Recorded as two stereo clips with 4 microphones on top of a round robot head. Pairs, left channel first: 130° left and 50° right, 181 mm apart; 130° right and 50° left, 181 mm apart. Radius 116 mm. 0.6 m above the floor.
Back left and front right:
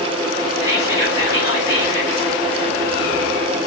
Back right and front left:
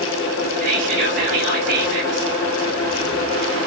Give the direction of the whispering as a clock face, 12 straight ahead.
11 o'clock.